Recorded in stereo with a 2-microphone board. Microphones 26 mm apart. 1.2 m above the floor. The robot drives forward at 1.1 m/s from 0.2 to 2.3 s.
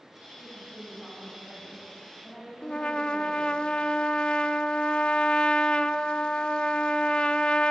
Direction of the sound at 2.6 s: 40° left (ahead or behind).